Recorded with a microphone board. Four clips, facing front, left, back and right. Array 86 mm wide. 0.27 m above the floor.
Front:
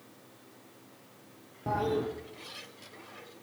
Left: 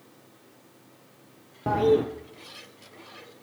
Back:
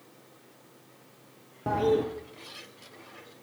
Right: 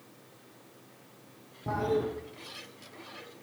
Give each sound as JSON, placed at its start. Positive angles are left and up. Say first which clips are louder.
{"t": 1.7, "sound": "a toilet flushing", "louder": "left 8 dB, back 5 dB", "azimuth_deg": 110, "distance_m": 2.0}